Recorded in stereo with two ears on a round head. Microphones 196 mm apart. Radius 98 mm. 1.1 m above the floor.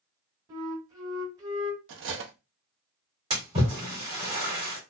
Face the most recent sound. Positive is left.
turn(degrees=-20)  # may be behind; listen again after turning